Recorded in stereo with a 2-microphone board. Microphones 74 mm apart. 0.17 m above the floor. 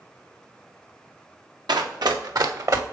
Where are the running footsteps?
75° right (ahead or behind), 1.4 m; by 2.8 s 45° right (ahead or behind), 1.4 m.